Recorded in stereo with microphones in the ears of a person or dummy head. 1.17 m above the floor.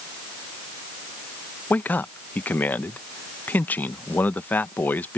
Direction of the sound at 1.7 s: 10° left (ahead or behind).